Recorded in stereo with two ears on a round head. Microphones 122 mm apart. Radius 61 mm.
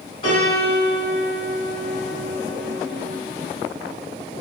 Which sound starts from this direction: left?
A piano, at 0.2 s.